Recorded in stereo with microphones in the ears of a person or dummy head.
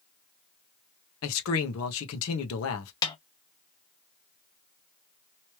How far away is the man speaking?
About 1.3 m.